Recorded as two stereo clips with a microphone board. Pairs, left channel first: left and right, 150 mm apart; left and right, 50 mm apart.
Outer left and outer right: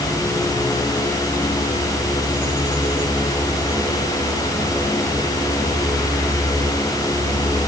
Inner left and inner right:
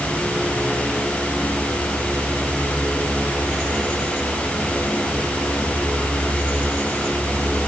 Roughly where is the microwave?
No microwave in this recording.